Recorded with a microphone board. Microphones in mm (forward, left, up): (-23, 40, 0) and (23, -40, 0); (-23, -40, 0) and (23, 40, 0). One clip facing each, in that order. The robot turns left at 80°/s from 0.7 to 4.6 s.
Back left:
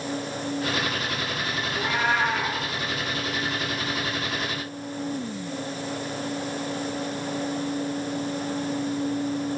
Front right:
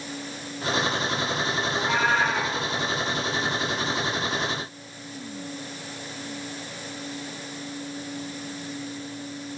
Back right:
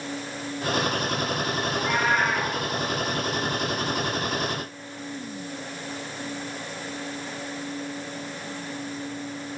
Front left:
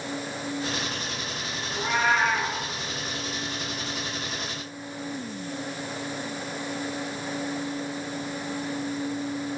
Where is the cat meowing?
10° left, 10 m; by 2.5 s 55° right, 10 m.